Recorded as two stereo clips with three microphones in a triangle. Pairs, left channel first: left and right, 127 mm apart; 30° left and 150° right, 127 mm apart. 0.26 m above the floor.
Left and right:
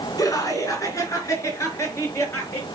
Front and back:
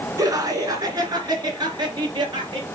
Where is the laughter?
150° left, 2.5 m; by 2.6 s 160° left, 4.5 m.